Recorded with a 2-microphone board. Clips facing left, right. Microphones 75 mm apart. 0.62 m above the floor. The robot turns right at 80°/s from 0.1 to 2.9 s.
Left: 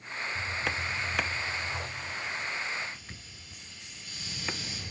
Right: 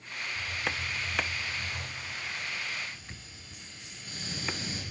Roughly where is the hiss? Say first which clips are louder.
Left 1 dB; behind left.